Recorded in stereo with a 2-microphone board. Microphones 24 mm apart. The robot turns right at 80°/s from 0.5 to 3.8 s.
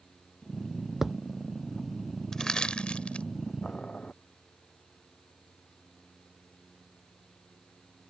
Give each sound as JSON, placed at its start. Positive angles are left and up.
{"t": 1.0, "sound": "a thud", "side_deg": -15}
{"t": 2.3, "sound": "crushing", "side_deg": 20}
{"t": 3.6, "sound": "boiling", "side_deg": 70}